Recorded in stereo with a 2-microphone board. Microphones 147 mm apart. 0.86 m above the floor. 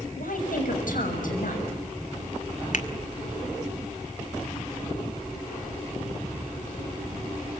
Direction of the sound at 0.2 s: 75° left (ahead or behind).